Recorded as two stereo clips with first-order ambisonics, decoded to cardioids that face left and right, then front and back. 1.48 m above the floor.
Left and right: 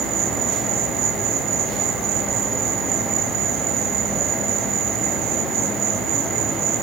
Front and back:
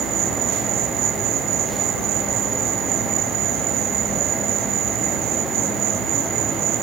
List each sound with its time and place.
0.0 s an insect: 135° right, 3.5 m